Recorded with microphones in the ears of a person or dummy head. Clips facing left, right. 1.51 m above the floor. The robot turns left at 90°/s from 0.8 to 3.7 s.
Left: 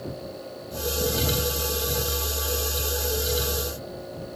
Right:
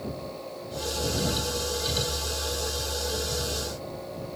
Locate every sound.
Only background noise.